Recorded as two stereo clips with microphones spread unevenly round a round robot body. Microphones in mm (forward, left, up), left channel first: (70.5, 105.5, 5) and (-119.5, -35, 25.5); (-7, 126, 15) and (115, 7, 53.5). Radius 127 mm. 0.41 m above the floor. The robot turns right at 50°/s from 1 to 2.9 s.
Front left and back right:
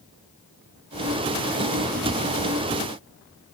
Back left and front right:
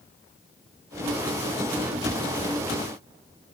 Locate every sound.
Only background noise.